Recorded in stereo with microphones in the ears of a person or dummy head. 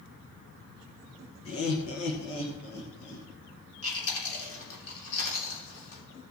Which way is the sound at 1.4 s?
75° left (ahead or behind).